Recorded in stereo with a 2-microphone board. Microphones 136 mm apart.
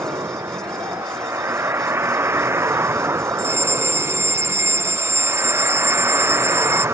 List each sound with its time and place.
0.0 s a vehicle: 20° right (ahead or behind)
3.4 s a fire alarm: 20° right (ahead or behind)